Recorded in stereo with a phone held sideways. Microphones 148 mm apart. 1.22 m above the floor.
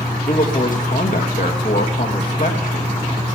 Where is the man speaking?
65° left (ahead or behind), 1.9 m.